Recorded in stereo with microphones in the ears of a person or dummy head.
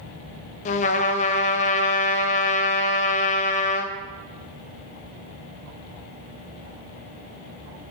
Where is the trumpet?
35° left (ahead or behind), 0.5 m.